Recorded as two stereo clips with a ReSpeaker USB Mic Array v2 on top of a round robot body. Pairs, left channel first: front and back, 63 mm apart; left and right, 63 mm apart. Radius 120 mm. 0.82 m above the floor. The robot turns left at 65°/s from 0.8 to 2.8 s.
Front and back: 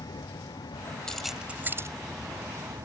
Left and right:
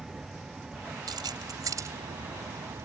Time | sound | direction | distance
0.0 | a vehicle | 10° right | ?
1.1 | keys jangling | 80° right | ?